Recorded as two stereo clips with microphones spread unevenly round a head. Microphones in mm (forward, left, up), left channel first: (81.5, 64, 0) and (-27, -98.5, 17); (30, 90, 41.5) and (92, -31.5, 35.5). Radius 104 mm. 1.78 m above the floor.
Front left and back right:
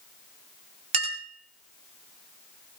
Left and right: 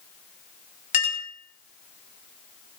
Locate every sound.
0.9 s a clink: 175° left, 2 m